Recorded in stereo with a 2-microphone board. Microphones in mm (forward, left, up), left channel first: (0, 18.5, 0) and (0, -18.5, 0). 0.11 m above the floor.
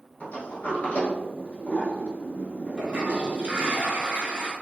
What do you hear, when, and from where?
0.2 s a sliding door: 45° left (ahead or behind), 0.9 m
2.8 s a toilet flushing: 25° right (ahead or behind), 0.9 m